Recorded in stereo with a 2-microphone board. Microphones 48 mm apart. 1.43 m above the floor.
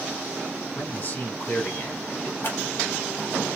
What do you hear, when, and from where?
0.8 s a man speaking: 45° left (ahead or behind), 1.9 m
2.4 s scissors: 50° left (ahead or behind), 1.7 m